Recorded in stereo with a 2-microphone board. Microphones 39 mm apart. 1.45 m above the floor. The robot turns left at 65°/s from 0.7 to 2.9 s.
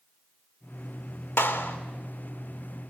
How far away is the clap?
About 2.5 m.